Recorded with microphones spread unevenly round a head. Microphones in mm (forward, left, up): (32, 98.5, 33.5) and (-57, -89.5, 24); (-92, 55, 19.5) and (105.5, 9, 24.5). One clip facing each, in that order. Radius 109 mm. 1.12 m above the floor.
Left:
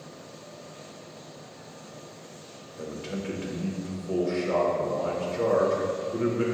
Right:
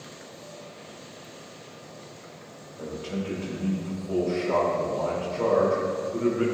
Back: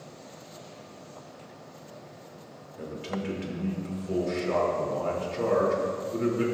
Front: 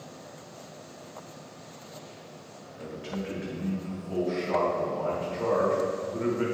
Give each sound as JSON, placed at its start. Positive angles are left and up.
{"t": 2.8, "sound": "a man speaking", "azimuth_deg": 130, "distance_m": 2.5}